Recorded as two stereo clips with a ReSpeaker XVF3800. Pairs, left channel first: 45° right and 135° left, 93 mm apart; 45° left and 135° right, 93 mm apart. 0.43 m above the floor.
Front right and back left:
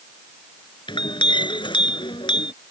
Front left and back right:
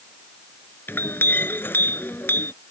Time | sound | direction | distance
0.9 | a clink | 20° right | ?